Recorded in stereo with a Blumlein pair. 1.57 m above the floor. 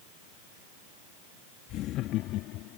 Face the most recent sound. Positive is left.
turn(degrees=40)